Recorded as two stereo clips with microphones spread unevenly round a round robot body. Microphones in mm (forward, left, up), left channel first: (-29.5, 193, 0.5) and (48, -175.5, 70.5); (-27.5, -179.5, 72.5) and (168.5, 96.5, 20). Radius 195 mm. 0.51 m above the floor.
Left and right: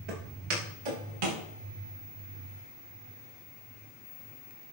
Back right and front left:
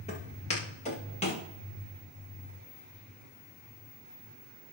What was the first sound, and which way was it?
Footsteps, 55° right.